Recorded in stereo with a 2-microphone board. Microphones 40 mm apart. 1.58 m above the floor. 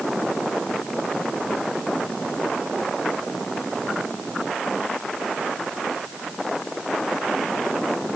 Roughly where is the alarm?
No alarm in this recording.